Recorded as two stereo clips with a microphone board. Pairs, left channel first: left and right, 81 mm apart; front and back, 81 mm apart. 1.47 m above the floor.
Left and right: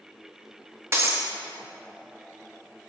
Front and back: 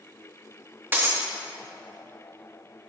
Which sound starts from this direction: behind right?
Breaking glass, at 0.9 s.